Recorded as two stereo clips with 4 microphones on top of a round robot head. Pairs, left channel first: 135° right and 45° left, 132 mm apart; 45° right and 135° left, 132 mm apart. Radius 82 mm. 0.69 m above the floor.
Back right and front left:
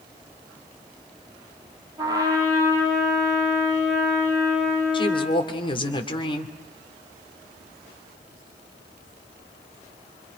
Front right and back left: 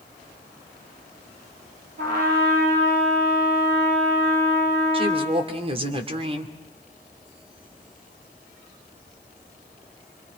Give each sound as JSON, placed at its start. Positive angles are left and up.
{"t": 2.0, "sound": "a trumpet", "azimuth_deg": 110, "distance_m": 6.0}
{"t": 4.9, "sound": "a woman speaking", "azimuth_deg": 175, "distance_m": 2.5}